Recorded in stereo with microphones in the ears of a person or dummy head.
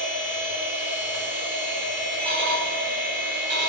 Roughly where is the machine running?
Right.